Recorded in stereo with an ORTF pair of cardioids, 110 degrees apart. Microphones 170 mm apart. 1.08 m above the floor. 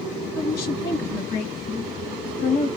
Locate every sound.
0.3 s a woman speaking: 60° left, 1.4 m